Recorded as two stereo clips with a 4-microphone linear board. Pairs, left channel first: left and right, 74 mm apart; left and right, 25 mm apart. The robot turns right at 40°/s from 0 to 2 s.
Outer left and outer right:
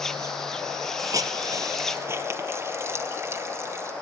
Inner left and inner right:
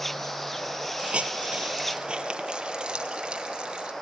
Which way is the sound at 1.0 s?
50° right (ahead or behind).